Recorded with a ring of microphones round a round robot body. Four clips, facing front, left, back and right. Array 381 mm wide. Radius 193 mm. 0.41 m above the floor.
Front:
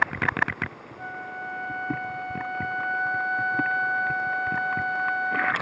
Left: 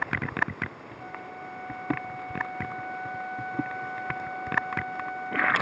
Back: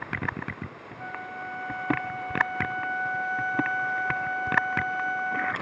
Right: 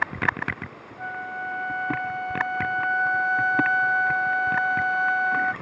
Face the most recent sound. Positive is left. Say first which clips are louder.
# right 9 dB, front 1 dB
turn(degrees=-85)